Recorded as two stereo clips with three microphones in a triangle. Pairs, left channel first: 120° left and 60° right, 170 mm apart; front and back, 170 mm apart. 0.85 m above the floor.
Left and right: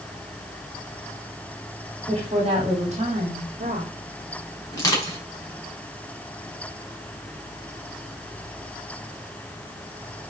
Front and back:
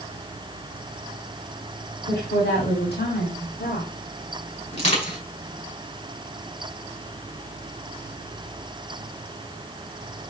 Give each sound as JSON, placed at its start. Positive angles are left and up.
{"t": 2.1, "sound": "a woman speaking", "azimuth_deg": -5, "distance_m": 3.0}
{"t": 4.7, "sound": "crushing", "azimuth_deg": 50, "distance_m": 5.5}